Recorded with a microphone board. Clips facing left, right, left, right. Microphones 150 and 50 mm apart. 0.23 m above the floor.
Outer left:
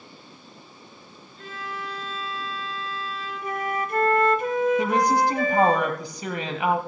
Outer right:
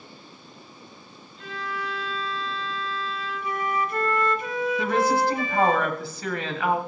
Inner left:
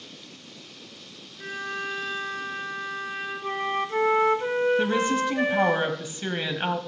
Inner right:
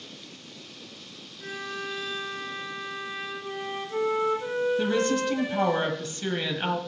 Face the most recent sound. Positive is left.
turn(degrees=20)  # may be behind; listen again after turning